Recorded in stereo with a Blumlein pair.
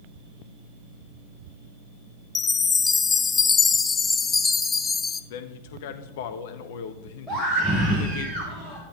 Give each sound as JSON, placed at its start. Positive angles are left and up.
{"t": 2.4, "sound": "a chime", "azimuth_deg": 15, "distance_m": 0.5}
{"t": 5.3, "sound": "a man speaking", "azimuth_deg": 50, "distance_m": 1.0}
{"t": 7.3, "sound": "a scream", "azimuth_deg": -5, "distance_m": 1.6}